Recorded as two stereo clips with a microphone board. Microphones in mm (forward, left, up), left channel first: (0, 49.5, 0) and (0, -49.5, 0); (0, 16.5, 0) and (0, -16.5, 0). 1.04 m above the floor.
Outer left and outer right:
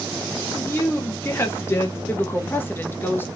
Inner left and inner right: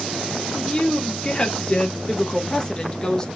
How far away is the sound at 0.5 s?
About 0.9 m.